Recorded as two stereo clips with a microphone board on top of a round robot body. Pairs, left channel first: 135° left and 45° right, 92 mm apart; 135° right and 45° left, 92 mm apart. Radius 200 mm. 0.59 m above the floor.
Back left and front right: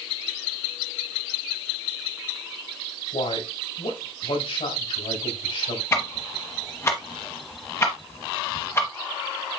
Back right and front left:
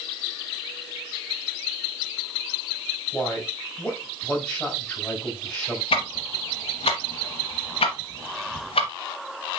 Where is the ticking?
160° right, 0.8 m.